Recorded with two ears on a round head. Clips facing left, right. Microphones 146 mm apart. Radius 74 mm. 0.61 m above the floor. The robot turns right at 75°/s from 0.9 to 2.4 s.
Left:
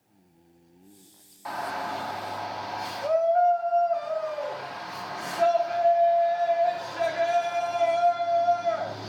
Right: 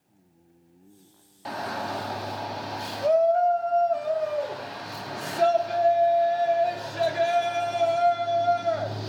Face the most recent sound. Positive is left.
turn(degrees=-60)